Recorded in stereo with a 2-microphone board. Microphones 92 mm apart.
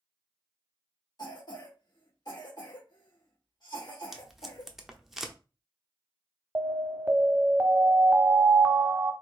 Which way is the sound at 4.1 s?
5° right (ahead or behind).